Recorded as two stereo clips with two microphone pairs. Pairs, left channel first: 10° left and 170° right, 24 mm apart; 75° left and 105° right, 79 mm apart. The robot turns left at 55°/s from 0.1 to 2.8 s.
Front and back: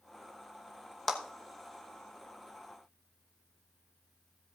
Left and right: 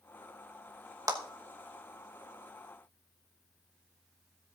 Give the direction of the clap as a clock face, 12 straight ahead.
2 o'clock.